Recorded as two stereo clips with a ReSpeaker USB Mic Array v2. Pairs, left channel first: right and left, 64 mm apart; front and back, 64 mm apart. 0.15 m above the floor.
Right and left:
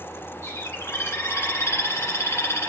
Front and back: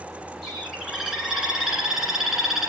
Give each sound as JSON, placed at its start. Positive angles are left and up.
{"t": 0.4, "sound": "a bird", "azimuth_deg": -95, "distance_m": 2.0}